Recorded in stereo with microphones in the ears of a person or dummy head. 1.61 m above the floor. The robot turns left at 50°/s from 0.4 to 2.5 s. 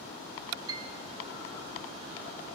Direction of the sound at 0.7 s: 15° right (ahead or behind).